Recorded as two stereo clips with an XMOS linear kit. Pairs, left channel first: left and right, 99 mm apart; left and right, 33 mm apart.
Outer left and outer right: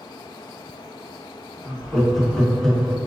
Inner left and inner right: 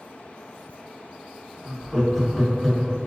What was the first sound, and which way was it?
Laughter, 5° left (ahead or behind).